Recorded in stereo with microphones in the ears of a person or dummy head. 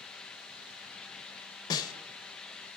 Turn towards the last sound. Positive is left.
turn(degrees=25)  # may be behind; listen again after turning